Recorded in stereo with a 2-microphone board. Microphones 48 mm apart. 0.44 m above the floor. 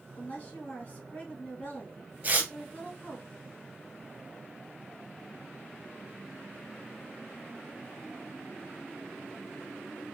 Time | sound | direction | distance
0.2 | a woman speaking | 35° left (ahead or behind) | 2.5 m
2.2 | tearing paper | 35° right (ahead or behind) | 1.0 m